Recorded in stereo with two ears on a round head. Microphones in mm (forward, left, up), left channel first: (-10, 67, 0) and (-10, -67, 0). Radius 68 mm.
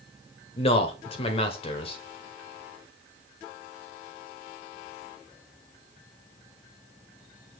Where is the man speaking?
40° left (ahead or behind), 1.5 m.